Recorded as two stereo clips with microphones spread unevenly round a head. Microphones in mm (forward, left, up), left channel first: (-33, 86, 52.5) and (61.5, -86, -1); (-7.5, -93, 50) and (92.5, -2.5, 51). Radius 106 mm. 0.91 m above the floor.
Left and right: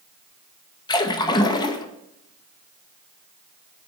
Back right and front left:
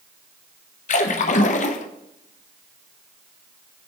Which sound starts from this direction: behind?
A splash, at 0.9 s.